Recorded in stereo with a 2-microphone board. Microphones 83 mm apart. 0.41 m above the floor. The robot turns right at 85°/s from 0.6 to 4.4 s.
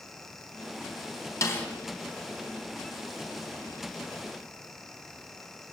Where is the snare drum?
40° left (ahead or behind), 3 m; by 1.7 s 20° left (ahead or behind), 3 m.